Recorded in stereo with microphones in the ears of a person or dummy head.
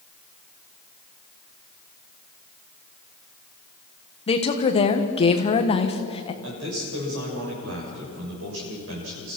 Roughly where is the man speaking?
Right.